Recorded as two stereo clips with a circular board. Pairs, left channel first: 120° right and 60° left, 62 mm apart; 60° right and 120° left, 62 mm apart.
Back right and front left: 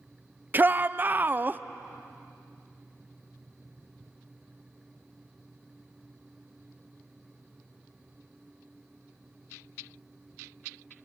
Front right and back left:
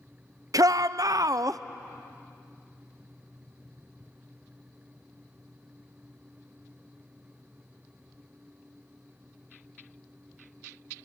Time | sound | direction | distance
0.5 | a shout | 115° left | 0.5 m